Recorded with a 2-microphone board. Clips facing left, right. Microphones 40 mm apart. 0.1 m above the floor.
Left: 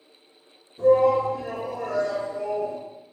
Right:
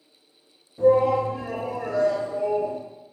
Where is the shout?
15° right (ahead or behind), 1.7 m.